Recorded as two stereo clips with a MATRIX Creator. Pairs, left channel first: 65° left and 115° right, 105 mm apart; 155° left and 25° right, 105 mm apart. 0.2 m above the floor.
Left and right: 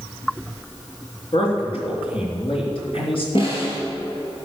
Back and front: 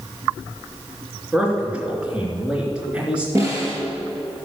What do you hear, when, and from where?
1.3 s a man speaking: 55° left, 3 m
3.4 s a snare drum: 40° left, 3 m